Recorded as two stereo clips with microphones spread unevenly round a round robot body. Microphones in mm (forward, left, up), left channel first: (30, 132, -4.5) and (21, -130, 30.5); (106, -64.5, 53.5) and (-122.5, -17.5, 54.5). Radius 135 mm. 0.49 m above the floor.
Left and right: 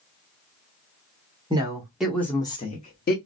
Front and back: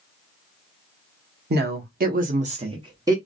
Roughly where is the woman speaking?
Behind.